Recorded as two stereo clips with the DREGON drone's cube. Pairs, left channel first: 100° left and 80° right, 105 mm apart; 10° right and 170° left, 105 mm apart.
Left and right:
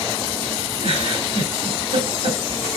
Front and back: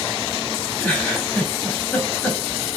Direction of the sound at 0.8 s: 85° right.